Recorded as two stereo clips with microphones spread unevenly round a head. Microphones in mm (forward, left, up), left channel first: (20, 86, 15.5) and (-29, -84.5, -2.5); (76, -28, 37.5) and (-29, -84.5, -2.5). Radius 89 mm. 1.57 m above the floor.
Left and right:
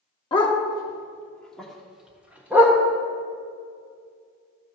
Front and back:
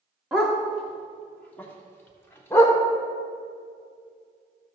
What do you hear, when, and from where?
0.3 s a dog barking: 80° left, 1.2 m; by 2.8 s 25° right, 1.8 m